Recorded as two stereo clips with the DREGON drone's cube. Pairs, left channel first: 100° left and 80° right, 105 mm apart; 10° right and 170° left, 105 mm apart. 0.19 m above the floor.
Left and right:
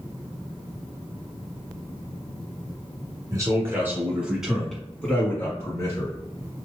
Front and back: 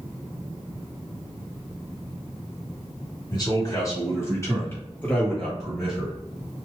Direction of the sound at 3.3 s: 40° right.